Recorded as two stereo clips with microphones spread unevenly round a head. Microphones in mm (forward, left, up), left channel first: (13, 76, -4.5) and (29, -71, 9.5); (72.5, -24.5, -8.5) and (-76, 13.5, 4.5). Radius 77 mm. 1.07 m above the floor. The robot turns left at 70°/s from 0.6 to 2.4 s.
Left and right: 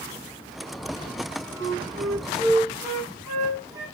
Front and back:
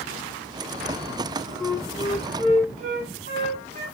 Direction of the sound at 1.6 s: 95° right.